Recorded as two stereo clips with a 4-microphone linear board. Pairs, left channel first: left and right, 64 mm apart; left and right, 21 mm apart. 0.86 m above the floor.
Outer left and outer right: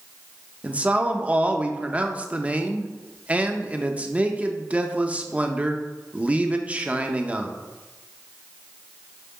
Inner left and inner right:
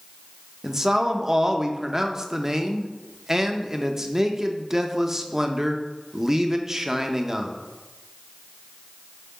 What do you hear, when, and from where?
0.6 s a man speaking: 20° right (ahead or behind), 0.6 m